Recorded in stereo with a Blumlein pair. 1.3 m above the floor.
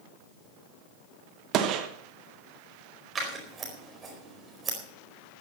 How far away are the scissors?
About 4.5 m.